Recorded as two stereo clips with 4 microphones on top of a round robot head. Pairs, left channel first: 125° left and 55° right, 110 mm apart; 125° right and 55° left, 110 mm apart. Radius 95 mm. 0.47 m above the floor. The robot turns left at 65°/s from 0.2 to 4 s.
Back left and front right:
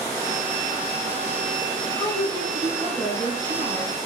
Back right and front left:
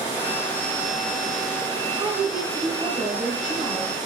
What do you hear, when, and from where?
2.0 s a woman speaking: 80° left, 1.4 m; by 3.9 s 45° right, 1.4 m